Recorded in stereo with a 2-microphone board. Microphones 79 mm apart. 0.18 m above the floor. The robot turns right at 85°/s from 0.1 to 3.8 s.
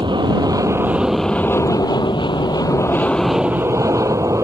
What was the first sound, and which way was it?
An aircraft, 90° right.